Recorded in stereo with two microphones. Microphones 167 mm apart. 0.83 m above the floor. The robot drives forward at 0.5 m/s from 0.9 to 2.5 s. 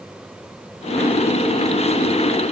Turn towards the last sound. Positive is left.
No sound to turn to.